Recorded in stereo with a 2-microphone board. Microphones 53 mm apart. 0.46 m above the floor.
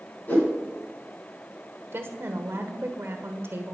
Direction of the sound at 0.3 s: 35° left (ahead or behind).